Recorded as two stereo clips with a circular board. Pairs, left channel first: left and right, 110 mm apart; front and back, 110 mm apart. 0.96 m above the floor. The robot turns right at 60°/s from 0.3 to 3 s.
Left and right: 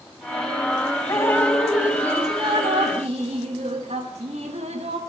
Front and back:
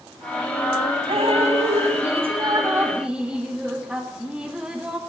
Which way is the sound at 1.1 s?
145° left.